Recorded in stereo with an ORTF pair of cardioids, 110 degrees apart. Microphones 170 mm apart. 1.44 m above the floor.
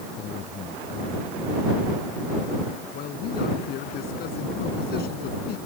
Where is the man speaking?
70° left.